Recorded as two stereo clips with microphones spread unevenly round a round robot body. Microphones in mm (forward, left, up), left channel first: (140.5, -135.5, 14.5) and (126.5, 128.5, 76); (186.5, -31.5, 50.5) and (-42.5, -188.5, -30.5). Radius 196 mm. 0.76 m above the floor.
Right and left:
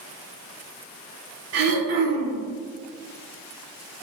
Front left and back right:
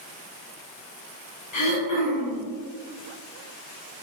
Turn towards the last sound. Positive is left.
turn(degrees=70)